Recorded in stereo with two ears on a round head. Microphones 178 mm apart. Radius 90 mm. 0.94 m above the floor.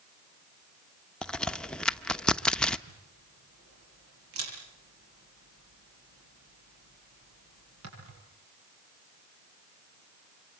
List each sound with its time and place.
1.2 s a crack: 5° left (ahead or behind), 0.9 m
2.9 s a camera shutter: 90° right, 9.5 m